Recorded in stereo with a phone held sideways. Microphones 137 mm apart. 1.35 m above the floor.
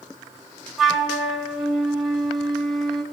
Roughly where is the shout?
No shout in this recording.